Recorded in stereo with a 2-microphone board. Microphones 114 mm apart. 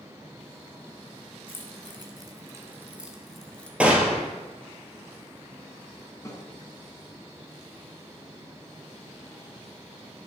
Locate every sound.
1.5 s keys jangling: 50° right (ahead or behind), 1.4 m; by 3.7 s 10° left (ahead or behind), 1.1 m
3.8 s a gunshot: 10° right (ahead or behind), 1.4 m
6.2 s a snare drum: 25° left (ahead or behind), 1.6 m